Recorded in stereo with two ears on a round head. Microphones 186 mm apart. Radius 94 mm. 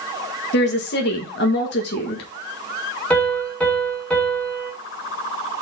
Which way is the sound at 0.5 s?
50° left (ahead or behind).